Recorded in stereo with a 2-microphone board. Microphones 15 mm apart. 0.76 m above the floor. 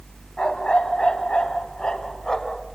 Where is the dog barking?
80° left, 2.5 m; by 2.6 s 45° left (ahead or behind), 3 m.